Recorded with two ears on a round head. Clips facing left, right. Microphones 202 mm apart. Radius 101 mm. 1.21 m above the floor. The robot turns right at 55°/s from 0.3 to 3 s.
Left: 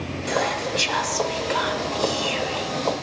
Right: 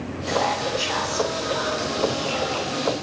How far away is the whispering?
About 2.5 m.